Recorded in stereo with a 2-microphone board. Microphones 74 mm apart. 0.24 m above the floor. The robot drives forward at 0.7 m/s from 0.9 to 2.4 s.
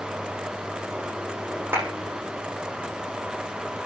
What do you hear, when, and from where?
1.7 s a clap: 30° right (ahead or behind), 9.5 m; by 1.9 s 25° right (ahead or behind), 10 m